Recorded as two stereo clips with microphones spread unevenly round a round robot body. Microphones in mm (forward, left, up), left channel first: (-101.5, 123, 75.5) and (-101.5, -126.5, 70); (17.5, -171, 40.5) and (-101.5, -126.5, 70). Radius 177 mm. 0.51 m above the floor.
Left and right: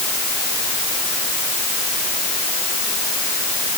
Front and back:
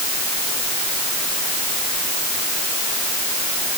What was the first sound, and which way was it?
Only background noise.